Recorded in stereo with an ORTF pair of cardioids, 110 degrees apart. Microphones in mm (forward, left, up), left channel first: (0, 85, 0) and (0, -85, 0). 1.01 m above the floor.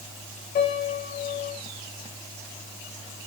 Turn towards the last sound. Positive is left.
turn(degrees=60)